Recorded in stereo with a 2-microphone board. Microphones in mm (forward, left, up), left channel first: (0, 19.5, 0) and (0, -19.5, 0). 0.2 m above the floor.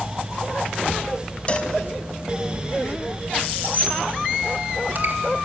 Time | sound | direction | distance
1.5 | a cowbell | 30° left (ahead or behind) | 1.1 m
3.6 | a squeak | 45° right (ahead or behind) | 3 m